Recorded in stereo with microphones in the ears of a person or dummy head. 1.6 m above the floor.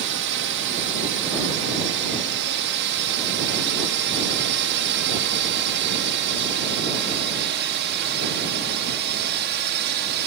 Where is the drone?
55° right (ahead or behind); by 10.3 s 50° right (ahead or behind).